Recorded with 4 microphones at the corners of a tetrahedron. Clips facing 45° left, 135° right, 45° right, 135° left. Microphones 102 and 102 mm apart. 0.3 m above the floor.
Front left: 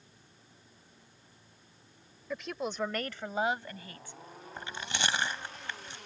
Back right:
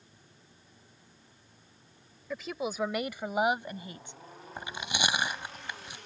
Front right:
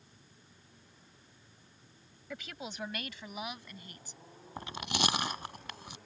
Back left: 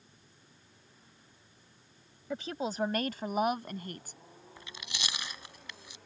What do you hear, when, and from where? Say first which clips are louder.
2.3 s a woman speaking: back right 1 dB, back left 9 dB; 135° left; by 4.2 s 160° left
4.6 s chewing: back right 2 dB, front right 11 dB; 60° right